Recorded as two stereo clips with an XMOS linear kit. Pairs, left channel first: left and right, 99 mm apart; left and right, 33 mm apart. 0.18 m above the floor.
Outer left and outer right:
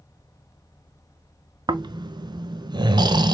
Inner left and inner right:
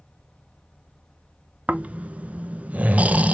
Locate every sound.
1.7 s snoring: 45° right (ahead or behind), 0.5 m